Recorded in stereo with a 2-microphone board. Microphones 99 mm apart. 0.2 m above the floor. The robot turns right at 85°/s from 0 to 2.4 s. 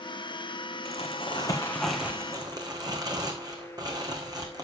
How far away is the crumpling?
About 2.5 m.